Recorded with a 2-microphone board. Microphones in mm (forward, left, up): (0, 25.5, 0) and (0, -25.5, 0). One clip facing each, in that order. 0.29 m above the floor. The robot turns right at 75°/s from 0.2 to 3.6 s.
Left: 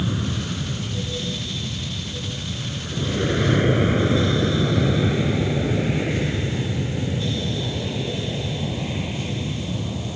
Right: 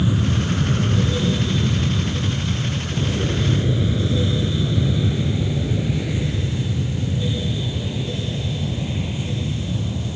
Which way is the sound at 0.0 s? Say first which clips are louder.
Right 5 dB; 5° right (ahead or behind).